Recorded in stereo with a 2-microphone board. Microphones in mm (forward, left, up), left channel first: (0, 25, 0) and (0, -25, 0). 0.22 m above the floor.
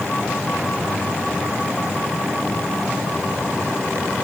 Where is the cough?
I don't hear a cough.